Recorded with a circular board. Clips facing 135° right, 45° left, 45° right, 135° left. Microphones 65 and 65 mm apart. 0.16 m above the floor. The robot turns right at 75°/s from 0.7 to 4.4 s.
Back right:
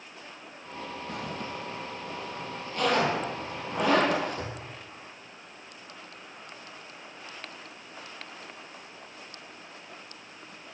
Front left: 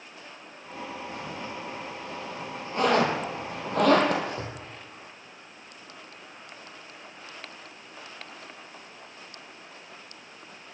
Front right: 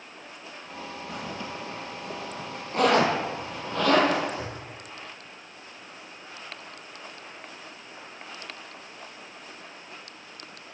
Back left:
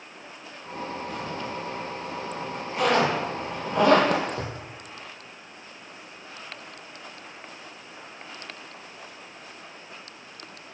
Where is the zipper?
140° right, 1.7 m; by 4.5 s 105° left, 1.7 m.